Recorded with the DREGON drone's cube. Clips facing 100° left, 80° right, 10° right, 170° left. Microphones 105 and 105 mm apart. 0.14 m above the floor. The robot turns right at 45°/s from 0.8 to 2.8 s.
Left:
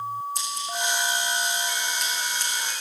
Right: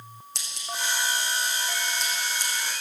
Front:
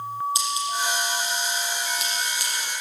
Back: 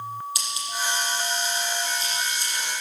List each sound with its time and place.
0.3 s scissors: 75° right, 5 m; by 2.5 s 5° left, 5 m